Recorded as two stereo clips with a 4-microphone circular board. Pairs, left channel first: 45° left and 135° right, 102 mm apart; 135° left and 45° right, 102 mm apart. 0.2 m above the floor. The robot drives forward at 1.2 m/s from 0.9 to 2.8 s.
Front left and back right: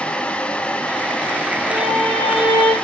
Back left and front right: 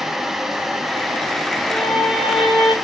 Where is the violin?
125° right, 5.5 m; by 2.7 s 135° right, 6.5 m.